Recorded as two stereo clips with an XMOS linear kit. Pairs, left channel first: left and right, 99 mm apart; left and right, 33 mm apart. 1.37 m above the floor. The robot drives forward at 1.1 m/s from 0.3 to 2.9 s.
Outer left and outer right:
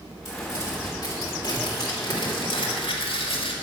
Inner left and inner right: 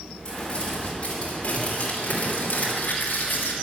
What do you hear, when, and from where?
0.2 s crumpling: 35° left (ahead or behind), 4.5 m; by 3.5 s 70° left (ahead or behind), 2.5 m